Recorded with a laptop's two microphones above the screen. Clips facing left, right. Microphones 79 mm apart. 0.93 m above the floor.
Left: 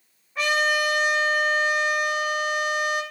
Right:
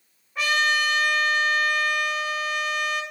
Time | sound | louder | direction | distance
0.3 | a trumpet | even | centre (ahead or behind) | 5.5 m